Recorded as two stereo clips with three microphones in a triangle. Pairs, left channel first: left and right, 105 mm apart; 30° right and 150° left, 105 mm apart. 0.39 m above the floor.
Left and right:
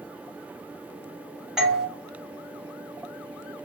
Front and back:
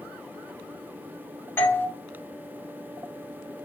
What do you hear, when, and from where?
1.6 s a doorbell: 10° right, 1.5 m